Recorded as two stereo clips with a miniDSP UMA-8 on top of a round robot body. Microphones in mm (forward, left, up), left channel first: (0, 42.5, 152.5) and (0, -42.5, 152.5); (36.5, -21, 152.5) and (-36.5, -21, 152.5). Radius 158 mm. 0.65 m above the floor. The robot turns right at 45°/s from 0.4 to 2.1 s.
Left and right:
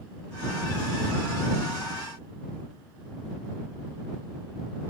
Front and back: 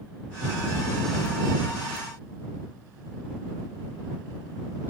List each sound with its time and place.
Only background noise.